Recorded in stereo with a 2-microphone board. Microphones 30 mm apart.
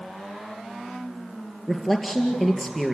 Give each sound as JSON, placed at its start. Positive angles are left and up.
{"t": 1.7, "sound": "a man speaking", "side_deg": 0, "distance_m": 2.0}